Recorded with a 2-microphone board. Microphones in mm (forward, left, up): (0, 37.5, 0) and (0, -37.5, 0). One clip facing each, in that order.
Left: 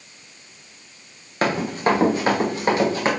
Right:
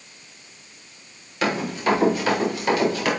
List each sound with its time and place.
1.4 s running footsteps: 40° left (ahead or behind), 3 m; by 3.1 s 30° left (ahead or behind), 4.5 m